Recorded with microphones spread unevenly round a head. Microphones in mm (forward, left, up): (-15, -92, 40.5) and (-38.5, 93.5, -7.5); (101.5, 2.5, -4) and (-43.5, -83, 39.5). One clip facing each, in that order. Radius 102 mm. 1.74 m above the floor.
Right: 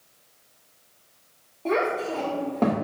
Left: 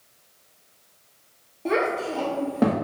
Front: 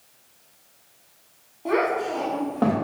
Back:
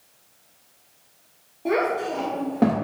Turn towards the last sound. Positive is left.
turn(degrees=-170)